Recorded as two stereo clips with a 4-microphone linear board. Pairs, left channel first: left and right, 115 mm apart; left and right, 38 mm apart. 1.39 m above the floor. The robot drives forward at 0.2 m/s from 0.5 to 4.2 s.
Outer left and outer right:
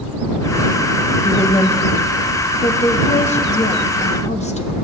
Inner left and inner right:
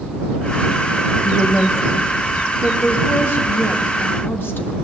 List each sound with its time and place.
1.2 s a woman speaking: 60° left (ahead or behind), 1.1 m; by 4.8 s 75° left (ahead or behind), 1.0 m